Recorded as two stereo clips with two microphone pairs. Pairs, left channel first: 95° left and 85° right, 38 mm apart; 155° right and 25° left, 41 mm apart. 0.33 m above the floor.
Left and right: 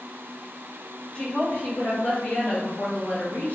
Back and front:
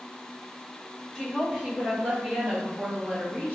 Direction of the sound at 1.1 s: 95° left.